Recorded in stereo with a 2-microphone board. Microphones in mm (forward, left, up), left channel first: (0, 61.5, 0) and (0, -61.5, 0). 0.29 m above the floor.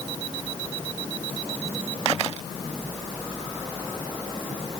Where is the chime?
No chime in this recording.